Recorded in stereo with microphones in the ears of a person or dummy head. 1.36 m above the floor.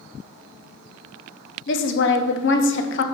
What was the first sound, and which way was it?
A woman speaking, 50° left (ahead or behind).